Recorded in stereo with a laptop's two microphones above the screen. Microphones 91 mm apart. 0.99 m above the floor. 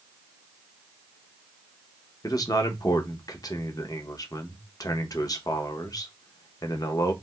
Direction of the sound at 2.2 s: 45° left (ahead or behind).